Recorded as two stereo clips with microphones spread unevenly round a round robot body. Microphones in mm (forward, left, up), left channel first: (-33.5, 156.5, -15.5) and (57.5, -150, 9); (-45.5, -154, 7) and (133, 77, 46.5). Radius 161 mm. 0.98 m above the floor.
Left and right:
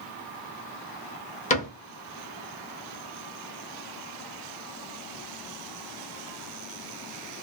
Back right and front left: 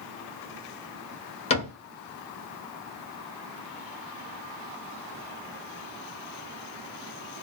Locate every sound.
1.5 s a cupboard door: 170° left, 0.8 m